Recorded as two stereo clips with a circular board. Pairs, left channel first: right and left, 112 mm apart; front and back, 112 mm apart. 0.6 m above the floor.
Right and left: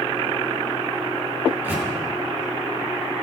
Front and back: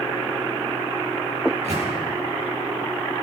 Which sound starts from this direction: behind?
A microwave, at 1.4 s.